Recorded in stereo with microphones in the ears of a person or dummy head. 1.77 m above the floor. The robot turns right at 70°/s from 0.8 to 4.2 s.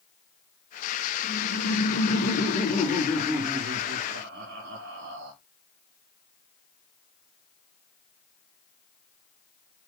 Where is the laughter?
45° left, 4.5 m; by 5.3 s 105° right, 4.5 m.